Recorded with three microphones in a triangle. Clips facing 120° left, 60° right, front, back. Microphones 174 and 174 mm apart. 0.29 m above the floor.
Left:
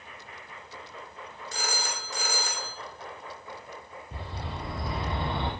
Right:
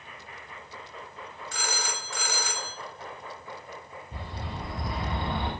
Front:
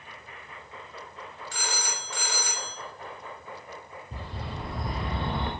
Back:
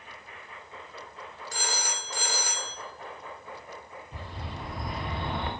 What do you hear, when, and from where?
1.5 s a phone ringing: 155° left, 0.8 m
4.1 s a bird: 55° left, 1.4 m